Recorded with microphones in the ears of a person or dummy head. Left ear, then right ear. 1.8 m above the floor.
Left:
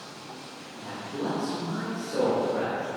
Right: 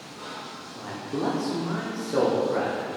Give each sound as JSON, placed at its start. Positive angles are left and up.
{"t": 0.8, "sound": "a man speaking", "side_deg": -70, "distance_m": 0.7}